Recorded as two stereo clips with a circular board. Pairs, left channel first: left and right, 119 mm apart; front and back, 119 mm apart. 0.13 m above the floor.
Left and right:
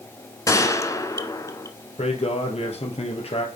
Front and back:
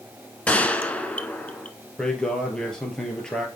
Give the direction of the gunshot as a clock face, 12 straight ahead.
10 o'clock.